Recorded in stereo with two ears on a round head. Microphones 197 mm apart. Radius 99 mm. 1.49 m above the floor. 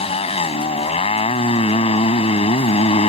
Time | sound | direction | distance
0.0 | a motorcycle | 30° left (ahead or behind) | ?